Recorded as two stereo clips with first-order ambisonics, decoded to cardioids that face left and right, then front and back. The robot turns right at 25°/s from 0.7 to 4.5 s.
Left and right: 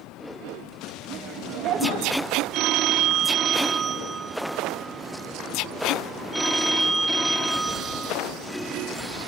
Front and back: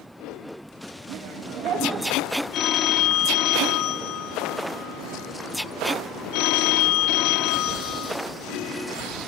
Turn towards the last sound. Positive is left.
turn(degrees=0)